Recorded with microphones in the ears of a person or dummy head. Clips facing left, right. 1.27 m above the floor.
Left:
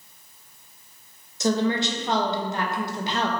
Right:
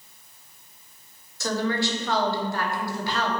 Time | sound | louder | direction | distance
1.4 | a woman speaking | left 3 dB | 20° left (ahead or behind) | 0.8 m